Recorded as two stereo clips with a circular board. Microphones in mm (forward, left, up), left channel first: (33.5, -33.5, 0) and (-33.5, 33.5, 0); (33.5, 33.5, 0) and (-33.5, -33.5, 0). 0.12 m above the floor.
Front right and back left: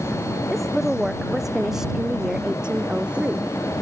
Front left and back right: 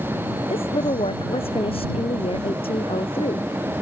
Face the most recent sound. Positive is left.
turn(degrees=65)